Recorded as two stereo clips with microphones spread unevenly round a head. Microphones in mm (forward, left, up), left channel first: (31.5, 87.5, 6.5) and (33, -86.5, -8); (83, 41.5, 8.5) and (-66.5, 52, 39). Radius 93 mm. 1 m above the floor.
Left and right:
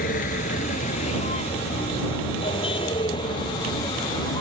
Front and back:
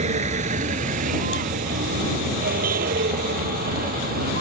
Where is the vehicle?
140° left; by 4.4 s 160° left.